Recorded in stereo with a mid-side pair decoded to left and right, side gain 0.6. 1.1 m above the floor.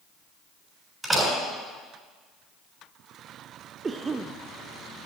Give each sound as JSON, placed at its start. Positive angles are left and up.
{"t": 1.0, "sound": "a door slam", "azimuth_deg": -10, "distance_m": 7.0}
{"t": 3.8, "sound": "a cough", "azimuth_deg": -25, "distance_m": 0.7}